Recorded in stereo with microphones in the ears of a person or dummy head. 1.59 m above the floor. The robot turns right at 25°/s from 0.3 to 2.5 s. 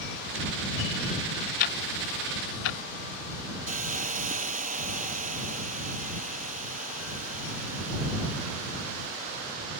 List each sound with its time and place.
1.6 s ticking: 50° left (ahead or behind); by 2.8 s 75° left (ahead or behind)
3.7 s a hiss: 40° right (ahead or behind)